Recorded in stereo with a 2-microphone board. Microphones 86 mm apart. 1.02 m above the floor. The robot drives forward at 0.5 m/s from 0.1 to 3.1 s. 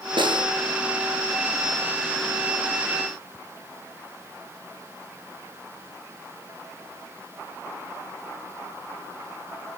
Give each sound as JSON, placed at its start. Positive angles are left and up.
{"t": 0.2, "sound": "a snare drum", "side_deg": -75, "distance_m": 8.0}